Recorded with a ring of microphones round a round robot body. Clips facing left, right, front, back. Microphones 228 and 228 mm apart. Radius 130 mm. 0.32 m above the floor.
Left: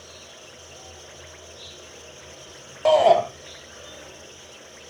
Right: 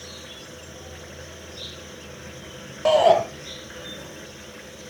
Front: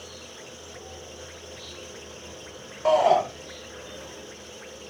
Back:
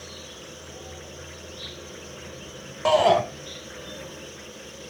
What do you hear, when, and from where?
0.0 s an insect: 105° right, 2.5 m
2.9 s a shout: 170° right, 1.3 m